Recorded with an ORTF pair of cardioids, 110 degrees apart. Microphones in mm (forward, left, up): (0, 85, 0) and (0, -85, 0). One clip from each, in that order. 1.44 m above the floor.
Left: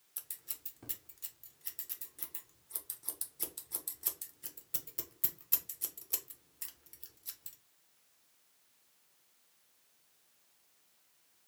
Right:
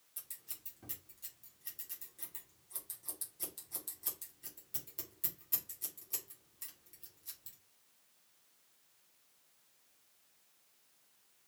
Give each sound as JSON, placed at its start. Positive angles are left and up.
{"t": 0.2, "sound": "scissors", "azimuth_deg": 25, "distance_m": 0.9}